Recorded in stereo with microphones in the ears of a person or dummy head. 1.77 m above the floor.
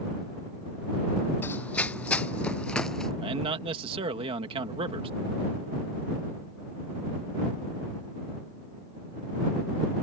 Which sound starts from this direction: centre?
Running footsteps, at 1.4 s.